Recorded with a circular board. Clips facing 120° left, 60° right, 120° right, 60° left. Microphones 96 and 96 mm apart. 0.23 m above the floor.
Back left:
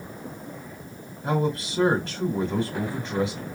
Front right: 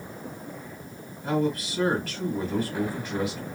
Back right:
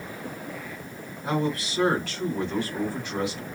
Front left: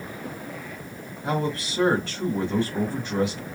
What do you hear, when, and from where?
1.2 s a man speaking: 95° left, 1.8 m